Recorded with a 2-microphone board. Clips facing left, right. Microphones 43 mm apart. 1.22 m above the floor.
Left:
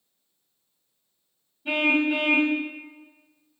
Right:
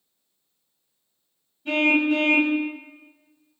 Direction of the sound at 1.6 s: 15° left (ahead or behind).